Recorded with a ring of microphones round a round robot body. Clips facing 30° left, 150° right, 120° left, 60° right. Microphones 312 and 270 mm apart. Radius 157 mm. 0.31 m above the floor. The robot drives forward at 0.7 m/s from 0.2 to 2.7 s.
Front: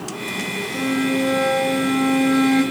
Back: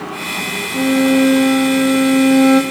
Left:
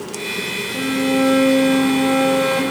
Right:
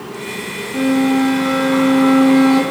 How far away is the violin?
About 5.5 m.